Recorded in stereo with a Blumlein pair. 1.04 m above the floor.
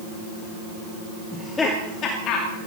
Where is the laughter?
10° left, 2 m; by 2.6 s 45° left, 2.5 m.